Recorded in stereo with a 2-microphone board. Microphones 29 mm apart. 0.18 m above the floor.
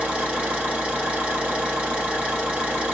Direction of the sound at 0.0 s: 45° right (ahead or behind).